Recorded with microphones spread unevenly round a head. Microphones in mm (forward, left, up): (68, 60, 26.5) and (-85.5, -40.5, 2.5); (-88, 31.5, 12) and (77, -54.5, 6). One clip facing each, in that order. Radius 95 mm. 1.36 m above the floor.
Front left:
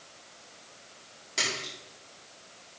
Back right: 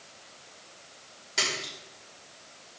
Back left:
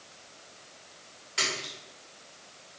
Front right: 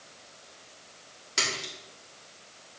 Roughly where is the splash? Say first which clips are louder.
Back right 1 dB, even; ahead right.